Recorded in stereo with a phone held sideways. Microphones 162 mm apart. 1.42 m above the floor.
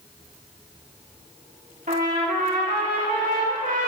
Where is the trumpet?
55° right (ahead or behind), 1.9 m.